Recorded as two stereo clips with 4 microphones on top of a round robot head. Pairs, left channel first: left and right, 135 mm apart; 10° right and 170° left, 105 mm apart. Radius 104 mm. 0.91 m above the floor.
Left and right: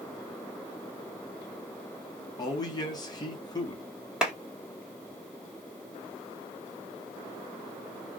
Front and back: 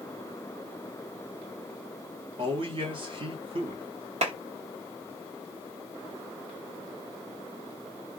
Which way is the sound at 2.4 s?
145° left.